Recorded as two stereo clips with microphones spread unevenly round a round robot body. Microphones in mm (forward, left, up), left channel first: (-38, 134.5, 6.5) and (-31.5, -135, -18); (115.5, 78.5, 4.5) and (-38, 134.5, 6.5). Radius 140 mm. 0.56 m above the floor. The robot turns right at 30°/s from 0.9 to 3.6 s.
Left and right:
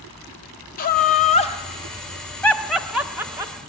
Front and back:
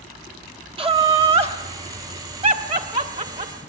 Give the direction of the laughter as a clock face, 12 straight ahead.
8 o'clock.